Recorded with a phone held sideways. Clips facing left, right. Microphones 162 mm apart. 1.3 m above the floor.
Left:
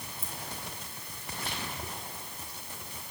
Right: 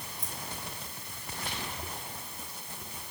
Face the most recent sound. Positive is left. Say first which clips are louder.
# right 1 dB
turn(degrees=30)  # may be behind; listen again after turning